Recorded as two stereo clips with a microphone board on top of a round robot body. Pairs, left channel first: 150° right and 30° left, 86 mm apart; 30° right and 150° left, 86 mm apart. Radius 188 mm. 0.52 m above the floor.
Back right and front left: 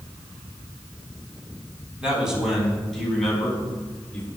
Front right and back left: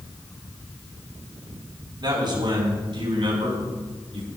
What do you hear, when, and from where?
2.0 s a man speaking: 110° left, 4.5 m; by 4.3 s 135° left, 6 m